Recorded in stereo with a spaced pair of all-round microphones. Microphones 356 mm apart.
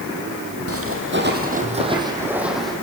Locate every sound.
0.7 s footsteps: 40° right (ahead or behind), 3.5 m; by 2.7 s centre (ahead or behind), 4 m